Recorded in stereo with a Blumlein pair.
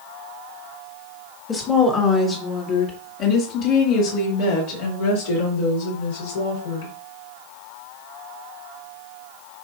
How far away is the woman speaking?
About 2 m.